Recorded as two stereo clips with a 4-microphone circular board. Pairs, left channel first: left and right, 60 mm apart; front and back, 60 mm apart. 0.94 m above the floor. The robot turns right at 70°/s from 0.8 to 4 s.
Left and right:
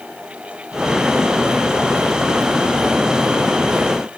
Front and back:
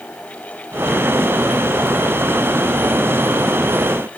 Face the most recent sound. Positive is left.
No sound to turn to.